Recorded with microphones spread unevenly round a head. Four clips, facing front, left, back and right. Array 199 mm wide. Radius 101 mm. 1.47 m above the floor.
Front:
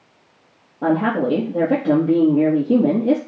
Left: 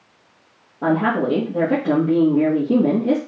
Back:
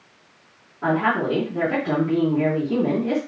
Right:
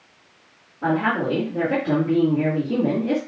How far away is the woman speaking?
About 1.7 m.